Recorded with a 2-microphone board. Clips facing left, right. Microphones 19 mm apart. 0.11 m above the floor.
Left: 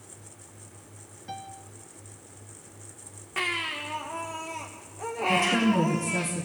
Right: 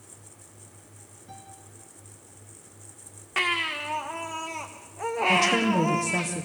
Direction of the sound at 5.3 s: 40° right (ahead or behind).